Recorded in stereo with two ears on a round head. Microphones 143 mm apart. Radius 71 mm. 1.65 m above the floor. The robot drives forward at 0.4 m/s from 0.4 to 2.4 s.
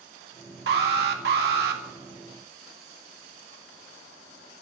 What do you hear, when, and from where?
0.7 s an alarm: 70° right (ahead or behind), 2 m